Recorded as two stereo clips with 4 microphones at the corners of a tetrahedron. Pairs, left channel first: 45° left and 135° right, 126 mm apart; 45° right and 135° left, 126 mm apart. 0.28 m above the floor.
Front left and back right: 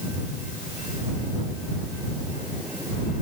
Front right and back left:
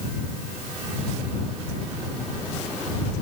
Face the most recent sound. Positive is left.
No sound to turn to.